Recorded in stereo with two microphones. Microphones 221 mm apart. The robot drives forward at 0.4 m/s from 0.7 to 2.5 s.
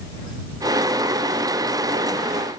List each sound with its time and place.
Only background noise.